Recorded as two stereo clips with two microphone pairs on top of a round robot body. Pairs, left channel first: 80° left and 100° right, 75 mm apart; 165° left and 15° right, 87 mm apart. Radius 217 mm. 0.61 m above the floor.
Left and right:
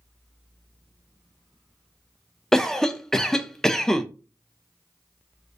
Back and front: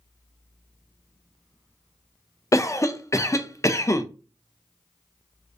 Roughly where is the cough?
Behind.